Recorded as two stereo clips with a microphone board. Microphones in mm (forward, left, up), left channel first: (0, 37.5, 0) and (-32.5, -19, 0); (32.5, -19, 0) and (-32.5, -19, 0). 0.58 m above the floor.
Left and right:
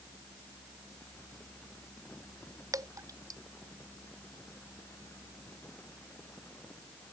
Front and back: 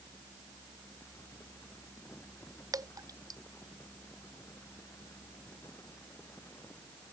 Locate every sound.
2.7 s dripping: 155° right